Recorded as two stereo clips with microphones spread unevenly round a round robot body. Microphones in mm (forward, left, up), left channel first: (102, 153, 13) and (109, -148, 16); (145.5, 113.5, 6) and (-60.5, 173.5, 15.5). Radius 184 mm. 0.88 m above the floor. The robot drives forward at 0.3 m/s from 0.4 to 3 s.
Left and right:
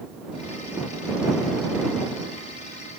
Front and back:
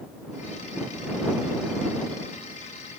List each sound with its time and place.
Only background noise.